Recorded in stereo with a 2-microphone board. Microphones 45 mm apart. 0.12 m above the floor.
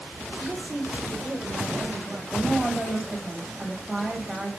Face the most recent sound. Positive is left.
turn(degrees=-10)  # may be behind; listen again after turning